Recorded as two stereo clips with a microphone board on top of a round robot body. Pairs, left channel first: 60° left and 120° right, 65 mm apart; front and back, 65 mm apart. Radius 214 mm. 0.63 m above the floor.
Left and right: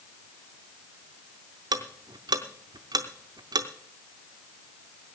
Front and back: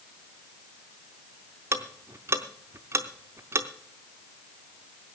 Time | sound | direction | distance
1.7 | ticking | 130° right | 0.7 m